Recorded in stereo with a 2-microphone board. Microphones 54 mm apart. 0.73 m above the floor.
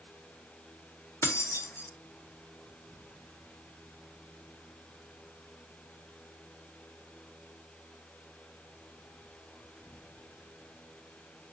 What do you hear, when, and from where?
1.2 s keys jangling: 50° left (ahead or behind), 0.7 m